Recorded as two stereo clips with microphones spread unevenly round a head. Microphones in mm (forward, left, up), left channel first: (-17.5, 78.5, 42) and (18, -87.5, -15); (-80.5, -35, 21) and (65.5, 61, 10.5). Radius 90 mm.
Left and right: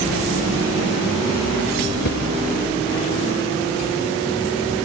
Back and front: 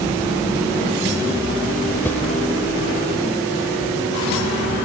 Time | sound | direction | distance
2.0 | a whoosh | 135° left | ?